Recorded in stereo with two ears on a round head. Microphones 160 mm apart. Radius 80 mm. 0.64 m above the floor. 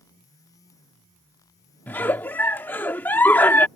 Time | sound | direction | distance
1.9 | a giggle | 10° left (ahead or behind) | ?